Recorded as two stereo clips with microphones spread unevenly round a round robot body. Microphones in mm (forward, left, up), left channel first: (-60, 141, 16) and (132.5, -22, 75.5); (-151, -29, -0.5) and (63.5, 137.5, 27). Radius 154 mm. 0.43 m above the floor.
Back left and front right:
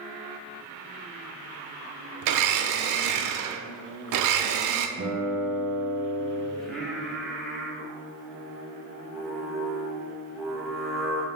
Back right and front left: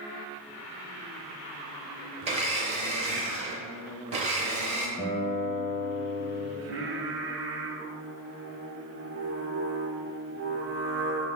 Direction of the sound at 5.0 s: 75° right.